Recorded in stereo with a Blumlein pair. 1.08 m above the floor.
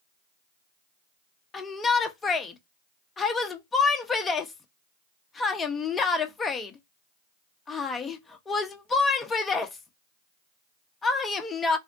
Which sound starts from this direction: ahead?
A shout, at 1.5 s.